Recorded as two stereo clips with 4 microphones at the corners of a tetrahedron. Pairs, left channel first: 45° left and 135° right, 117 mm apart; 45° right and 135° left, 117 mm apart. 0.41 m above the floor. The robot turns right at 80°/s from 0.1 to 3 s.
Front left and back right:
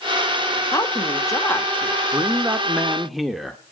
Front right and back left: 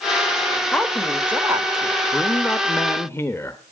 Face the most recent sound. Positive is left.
turn(degrees=-45)